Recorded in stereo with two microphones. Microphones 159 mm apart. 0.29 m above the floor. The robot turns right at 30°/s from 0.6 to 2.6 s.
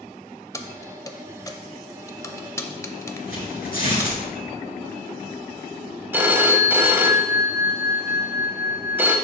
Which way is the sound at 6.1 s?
15° right (ahead or behind).